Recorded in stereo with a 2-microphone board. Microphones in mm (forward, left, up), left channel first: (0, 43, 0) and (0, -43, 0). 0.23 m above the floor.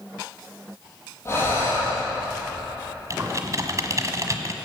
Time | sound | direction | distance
1.2 | breathing | 30° left (ahead or behind) | 7.5 m
3.1 | typing on a keyboard | 40° right (ahead or behind) | 1.2 m